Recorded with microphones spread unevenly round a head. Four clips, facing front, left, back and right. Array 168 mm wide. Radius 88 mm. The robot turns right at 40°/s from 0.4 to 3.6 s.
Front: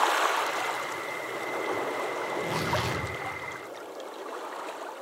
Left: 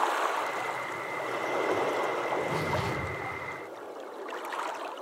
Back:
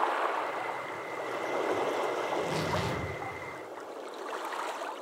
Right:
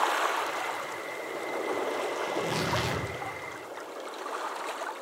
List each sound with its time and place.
2.3 s tearing paper: 70° right, 1.1 m; by 3.0 s 40° right, 1.1 m